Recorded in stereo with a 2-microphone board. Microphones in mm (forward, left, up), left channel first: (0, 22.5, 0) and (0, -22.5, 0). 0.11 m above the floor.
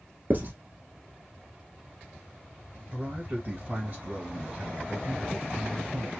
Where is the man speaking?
40° right (ahead or behind), 2 m.